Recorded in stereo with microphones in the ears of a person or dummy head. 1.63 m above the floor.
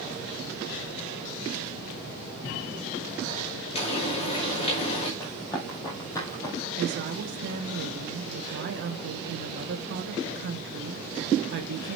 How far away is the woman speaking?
About 1.3 m.